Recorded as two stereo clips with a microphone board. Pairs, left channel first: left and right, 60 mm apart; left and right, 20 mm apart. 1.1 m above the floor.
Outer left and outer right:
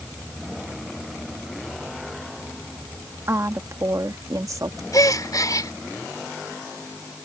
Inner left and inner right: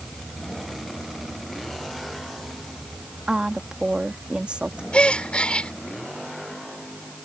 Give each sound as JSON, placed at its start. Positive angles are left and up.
{"t": 3.3, "sound": "a woman speaking", "side_deg": -50}
{"t": 4.9, "sound": "a gasp", "side_deg": 80}